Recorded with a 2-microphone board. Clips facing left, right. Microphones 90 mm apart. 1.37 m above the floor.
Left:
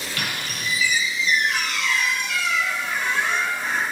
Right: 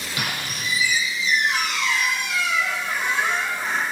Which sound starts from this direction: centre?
A squeak, at 0.2 s.